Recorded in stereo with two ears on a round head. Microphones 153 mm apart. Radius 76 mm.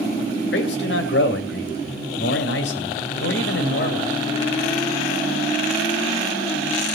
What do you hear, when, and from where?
0.5 s a man speaking: 75° left (ahead or behind), 2.5 m